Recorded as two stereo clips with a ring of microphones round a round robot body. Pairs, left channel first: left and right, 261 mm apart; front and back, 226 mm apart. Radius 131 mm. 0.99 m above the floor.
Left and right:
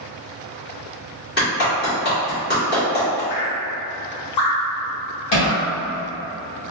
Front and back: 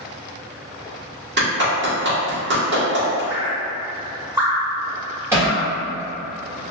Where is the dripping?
110° left, 1.7 m.